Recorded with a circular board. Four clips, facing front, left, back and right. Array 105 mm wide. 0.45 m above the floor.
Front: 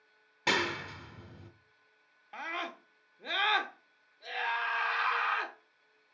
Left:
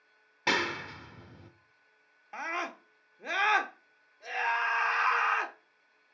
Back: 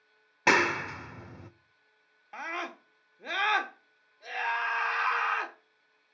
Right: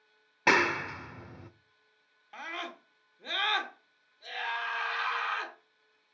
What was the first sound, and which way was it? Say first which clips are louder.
A clap: right 5 dB, back 7 dB; 145° right.